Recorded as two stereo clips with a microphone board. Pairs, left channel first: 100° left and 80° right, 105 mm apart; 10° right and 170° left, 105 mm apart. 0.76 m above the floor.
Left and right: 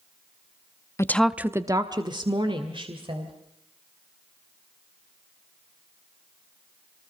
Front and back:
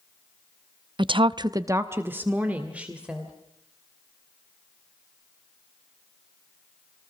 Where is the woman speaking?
150° left, 0.6 m; by 3.3 s 110° right, 3 m.